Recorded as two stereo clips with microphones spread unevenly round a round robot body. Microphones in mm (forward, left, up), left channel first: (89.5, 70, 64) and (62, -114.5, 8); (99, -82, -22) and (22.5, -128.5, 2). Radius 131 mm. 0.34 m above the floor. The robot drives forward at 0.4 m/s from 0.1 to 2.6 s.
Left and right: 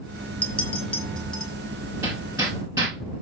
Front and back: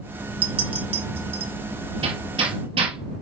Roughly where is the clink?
Behind.